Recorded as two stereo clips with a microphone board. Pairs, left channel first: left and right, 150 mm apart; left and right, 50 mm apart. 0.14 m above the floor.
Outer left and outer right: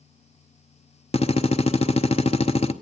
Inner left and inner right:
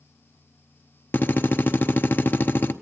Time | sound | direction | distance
1.1 | a drill | 45° left (ahead or behind) | 0.8 m